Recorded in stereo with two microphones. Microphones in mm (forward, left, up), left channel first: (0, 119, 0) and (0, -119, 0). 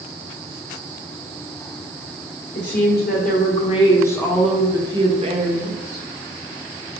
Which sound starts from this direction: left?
A woman speaking, at 2.5 s.